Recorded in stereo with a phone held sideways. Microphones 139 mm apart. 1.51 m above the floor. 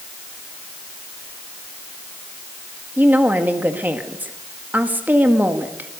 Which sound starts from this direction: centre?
A woman speaking, at 3.0 s.